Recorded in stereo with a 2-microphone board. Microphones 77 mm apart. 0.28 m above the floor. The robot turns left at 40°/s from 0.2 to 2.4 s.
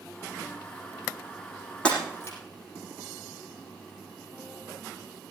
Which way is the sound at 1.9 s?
15° left (ahead or behind).